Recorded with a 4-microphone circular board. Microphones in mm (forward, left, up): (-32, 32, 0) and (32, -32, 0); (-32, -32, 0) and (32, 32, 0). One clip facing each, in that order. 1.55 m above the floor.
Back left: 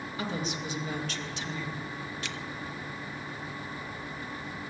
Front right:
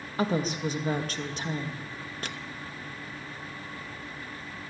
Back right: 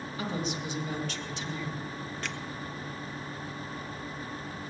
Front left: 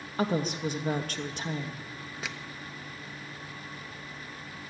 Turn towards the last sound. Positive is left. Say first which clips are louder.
# front right 1 dB, front left 1 dB
turn(degrees=-35)